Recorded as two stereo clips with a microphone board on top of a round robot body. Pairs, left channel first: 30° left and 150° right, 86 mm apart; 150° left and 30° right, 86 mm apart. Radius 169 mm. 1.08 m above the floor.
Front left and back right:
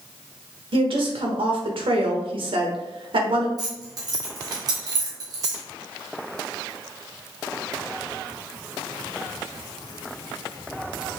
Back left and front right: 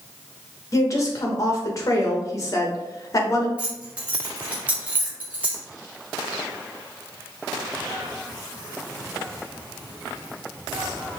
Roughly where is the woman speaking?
Behind.